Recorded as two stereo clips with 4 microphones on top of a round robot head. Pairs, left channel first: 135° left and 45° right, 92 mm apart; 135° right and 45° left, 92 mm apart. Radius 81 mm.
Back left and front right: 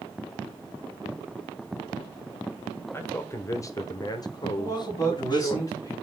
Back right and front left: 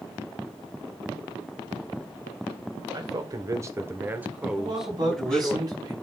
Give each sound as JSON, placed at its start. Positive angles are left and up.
{"t": 2.9, "sound": "a man speaking", "azimuth_deg": 75, "distance_m": 1.5}
{"t": 4.6, "sound": "a man speaking", "azimuth_deg": 85, "distance_m": 3.5}